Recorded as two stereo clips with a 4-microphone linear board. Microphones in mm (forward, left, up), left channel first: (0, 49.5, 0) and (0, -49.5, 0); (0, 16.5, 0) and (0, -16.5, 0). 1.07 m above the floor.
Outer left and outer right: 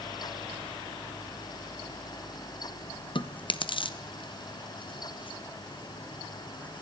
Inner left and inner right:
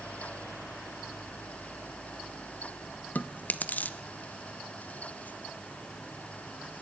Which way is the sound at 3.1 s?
60° left (ahead or behind).